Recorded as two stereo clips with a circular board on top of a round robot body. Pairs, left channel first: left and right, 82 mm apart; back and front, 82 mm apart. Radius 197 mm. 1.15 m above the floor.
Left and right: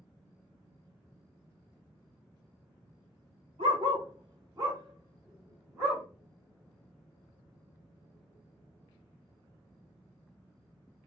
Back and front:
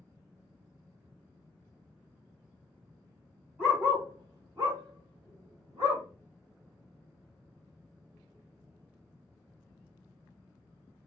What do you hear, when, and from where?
3.6 s a dog barking: 80° right, 1.9 m; by 6.0 s 10° right, 3 m